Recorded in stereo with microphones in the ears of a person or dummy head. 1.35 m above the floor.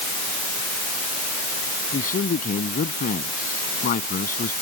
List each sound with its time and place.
1.9 s a man speaking: 50° left (ahead or behind)